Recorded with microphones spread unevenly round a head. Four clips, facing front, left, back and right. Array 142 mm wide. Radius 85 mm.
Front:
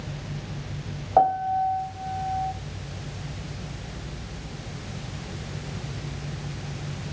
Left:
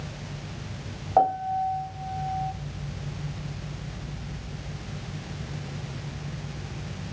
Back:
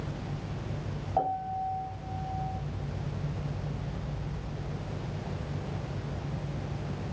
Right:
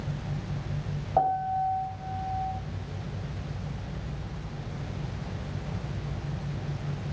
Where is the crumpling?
I don't hear crumpling.